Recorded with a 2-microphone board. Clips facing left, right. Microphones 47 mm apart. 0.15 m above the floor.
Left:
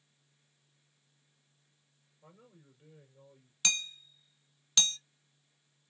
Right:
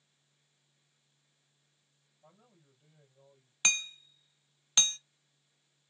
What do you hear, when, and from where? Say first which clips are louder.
2.2 s a man speaking: left 4 dB; 60° left (ahead or behind), 3 m
3.6 s hammering: right 3 dB; 30° right (ahead or behind), 0.7 m